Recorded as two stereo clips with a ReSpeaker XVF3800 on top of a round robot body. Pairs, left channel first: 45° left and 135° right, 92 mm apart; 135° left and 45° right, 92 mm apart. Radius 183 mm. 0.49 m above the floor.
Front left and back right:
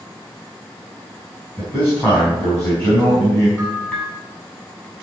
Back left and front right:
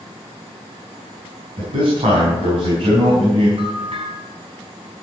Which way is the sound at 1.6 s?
15° right.